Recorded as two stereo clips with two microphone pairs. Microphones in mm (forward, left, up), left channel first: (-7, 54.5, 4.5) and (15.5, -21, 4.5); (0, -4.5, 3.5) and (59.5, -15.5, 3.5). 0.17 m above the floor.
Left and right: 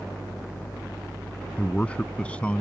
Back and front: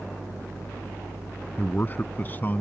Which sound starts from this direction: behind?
A man speaking, at 1.6 s.